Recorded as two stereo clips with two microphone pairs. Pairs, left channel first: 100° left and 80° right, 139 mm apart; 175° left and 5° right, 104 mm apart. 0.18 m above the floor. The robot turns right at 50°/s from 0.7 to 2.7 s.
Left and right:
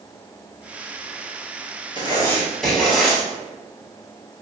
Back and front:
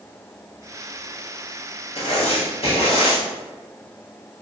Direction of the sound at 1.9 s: 155° left.